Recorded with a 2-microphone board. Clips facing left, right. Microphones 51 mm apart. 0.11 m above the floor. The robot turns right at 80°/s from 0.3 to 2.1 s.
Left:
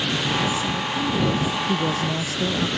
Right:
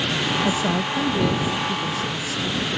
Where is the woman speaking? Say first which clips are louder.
Right 2 dB; 70° right; by 2.7 s 65° left.